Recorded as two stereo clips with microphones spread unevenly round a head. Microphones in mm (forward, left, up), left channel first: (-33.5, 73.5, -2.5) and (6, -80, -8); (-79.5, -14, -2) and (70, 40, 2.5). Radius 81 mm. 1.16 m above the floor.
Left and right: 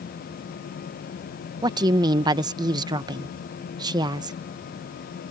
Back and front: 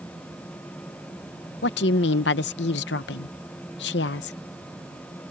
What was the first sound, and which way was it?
A woman speaking, 140° right.